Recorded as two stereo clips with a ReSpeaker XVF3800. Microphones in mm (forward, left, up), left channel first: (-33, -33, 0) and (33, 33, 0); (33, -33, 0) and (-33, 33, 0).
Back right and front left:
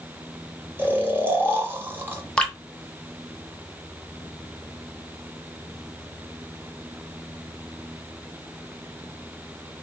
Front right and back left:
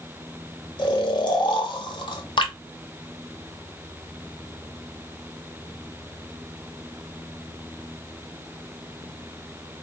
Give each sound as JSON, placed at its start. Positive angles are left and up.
{"t": 0.8, "sound": "snoring", "azimuth_deg": -20, "distance_m": 1.0}
{"t": 2.4, "sound": "dripping", "azimuth_deg": -55, "distance_m": 0.7}